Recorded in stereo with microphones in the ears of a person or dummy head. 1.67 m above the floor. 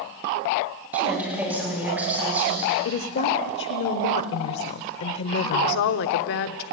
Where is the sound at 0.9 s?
5° right (ahead or behind), 9 m.